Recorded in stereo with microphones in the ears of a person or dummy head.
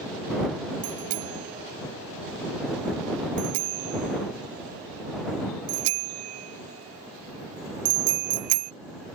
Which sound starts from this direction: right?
A bicycle bell, at 0.8 s.